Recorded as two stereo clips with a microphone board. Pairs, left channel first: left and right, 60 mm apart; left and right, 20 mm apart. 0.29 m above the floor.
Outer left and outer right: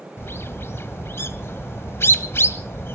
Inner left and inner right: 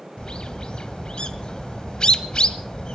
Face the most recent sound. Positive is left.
turn(degrees=45)  # may be behind; listen again after turning